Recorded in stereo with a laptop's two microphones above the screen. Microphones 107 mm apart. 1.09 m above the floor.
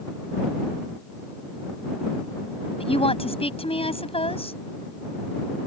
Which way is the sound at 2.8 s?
60° left (ahead or behind).